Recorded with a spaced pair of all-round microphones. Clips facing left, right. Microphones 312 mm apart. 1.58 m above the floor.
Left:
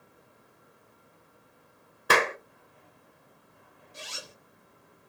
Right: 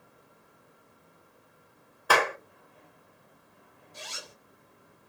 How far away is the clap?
About 0.6 m.